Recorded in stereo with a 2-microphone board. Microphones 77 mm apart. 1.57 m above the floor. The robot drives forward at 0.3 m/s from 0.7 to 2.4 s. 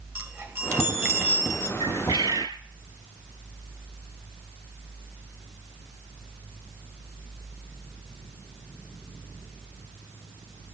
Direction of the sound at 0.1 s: 30° right (ahead or behind).